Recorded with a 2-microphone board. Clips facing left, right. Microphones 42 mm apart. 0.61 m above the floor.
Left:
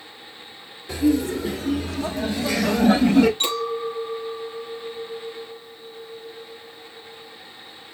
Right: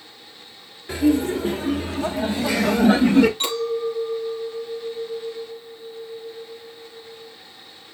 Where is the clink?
5° right (ahead or behind), 4 m.